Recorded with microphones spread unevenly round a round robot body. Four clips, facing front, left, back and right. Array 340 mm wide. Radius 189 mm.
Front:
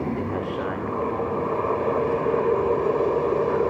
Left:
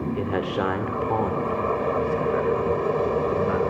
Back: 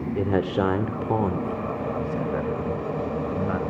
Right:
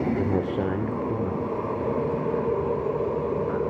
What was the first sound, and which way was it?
A man speaking, 145° right.